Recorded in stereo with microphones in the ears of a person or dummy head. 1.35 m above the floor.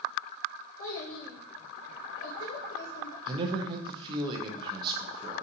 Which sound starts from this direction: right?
A man speaking, at 3.3 s.